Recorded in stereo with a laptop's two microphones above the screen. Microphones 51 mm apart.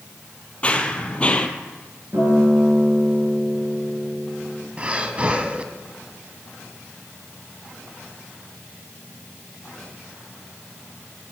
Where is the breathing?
25° right (ahead or behind), 1.3 m.